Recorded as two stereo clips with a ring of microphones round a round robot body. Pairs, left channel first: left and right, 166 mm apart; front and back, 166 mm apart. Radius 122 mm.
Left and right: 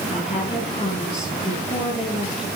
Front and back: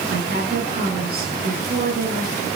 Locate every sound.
0.1 s a woman speaking: 155° left, 9.5 m